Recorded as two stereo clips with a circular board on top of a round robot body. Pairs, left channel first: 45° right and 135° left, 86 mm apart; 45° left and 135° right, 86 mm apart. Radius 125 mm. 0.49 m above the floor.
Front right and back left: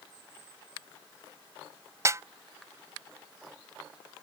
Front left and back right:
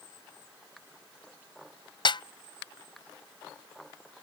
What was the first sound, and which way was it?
A snare drum, 80° left.